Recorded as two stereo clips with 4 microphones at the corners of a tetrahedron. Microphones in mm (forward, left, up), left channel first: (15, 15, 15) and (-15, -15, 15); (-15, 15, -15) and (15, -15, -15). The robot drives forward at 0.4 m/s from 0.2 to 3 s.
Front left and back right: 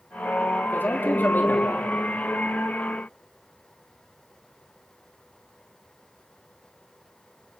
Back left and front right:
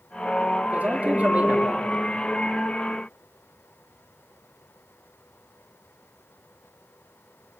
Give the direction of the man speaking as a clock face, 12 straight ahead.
12 o'clock.